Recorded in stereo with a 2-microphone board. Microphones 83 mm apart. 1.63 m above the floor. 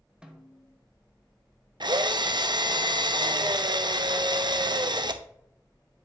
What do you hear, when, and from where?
0.2 s a snare drum: 10° right (ahead or behind), 1.1 m
1.8 s a drill: 60° right (ahead or behind), 0.6 m